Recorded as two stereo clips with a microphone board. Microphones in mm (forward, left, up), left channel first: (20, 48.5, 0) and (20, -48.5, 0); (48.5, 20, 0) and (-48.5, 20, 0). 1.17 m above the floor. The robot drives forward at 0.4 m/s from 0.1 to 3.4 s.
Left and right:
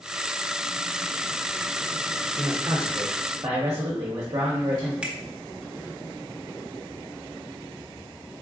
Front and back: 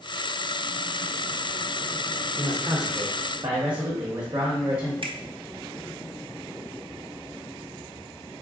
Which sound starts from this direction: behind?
A finger snap, at 5.0 s.